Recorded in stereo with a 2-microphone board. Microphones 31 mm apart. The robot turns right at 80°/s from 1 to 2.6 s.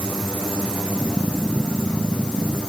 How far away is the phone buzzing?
No phone buzzing in this recording.